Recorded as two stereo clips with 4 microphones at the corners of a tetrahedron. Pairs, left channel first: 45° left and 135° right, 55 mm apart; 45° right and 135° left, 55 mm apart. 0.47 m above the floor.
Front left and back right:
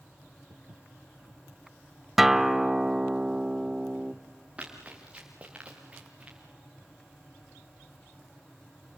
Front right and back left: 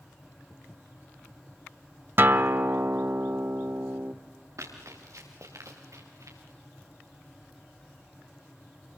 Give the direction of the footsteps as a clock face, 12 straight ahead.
5 o'clock.